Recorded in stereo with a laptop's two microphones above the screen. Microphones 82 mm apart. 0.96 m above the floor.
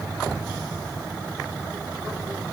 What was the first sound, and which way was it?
Only background noise.